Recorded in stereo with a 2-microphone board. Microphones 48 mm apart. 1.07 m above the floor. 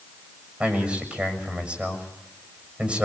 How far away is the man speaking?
About 6.5 m.